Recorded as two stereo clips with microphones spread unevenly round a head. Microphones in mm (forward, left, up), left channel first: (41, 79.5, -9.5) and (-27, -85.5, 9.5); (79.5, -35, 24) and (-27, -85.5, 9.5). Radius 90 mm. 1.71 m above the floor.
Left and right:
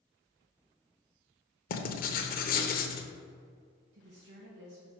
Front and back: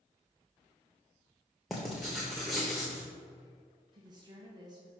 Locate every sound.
1.7 s writing: 110° left, 0.8 m
3.9 s a woman speaking: 100° right, 1.1 m